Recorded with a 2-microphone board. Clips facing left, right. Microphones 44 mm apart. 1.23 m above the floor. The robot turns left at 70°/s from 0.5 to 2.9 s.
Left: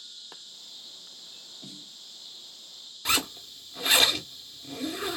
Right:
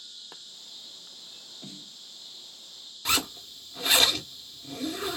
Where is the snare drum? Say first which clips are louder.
Right 2 dB; 30° right (ahead or behind), 0.7 m; by 2.0 s 55° right (ahead or behind), 0.7 m.